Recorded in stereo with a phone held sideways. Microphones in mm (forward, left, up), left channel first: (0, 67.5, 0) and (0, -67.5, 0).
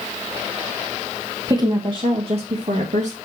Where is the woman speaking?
30° right (ahead or behind), 1.7 m; by 3.1 s 60° right (ahead or behind), 2 m.